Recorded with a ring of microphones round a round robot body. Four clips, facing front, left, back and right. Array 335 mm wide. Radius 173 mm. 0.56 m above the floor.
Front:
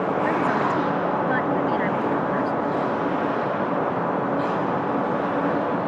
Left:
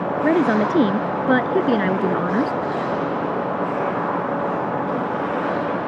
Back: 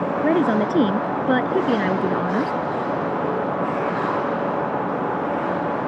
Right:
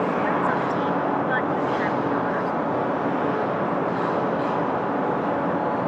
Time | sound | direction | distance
0.2 | a woman speaking | 125° left | ?